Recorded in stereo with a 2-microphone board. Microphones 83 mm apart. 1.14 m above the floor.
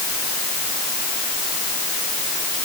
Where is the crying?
I don't hear crying.